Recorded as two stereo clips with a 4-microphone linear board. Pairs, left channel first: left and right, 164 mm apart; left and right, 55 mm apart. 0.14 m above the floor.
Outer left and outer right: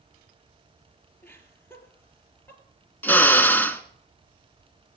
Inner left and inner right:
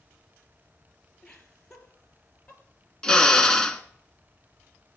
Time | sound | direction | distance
1.2 | laughter | 10° left (ahead or behind) | 3 m
3.0 | a drill | 10° left (ahead or behind) | 1.0 m